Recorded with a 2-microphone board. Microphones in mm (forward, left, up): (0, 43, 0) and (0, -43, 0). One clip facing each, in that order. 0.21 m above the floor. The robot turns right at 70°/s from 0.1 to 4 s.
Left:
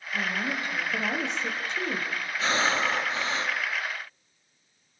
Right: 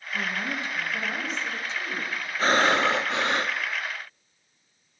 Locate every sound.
0.1 s a woman speaking: 10° left, 8 m; by 2.1 s 145° left, 8 m
2.4 s breathing: 135° right, 1.8 m; by 3.6 s 55° right, 1.8 m